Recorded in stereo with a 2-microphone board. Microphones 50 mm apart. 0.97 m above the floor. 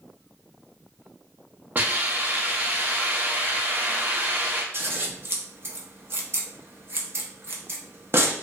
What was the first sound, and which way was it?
A hiss, 40° right (ahead or behind).